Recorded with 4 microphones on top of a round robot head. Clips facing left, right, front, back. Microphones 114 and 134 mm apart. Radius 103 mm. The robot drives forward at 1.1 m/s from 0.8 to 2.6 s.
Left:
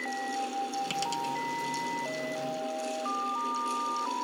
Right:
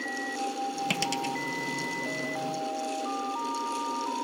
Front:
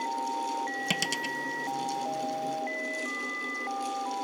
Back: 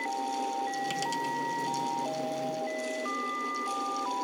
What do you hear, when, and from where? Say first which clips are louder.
0.9 s a dropped coin: right 1 dB, back 2 dB; 40° right; by 1.4 s 45° right